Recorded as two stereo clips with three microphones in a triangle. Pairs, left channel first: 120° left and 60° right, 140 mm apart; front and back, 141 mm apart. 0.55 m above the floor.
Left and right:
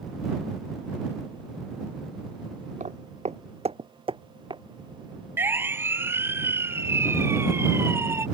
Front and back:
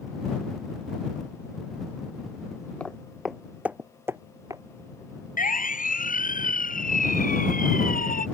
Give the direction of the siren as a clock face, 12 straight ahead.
12 o'clock.